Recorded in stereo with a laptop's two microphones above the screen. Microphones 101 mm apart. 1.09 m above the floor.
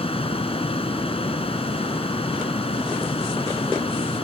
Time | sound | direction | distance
0.0 | a fan | 75° left (ahead or behind) | ?